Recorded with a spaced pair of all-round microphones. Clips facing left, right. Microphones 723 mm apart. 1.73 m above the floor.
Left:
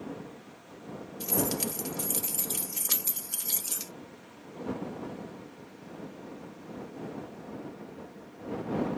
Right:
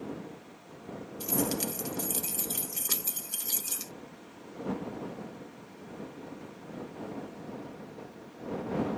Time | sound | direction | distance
1.2 | keys jangling | 20° left (ahead or behind) | ?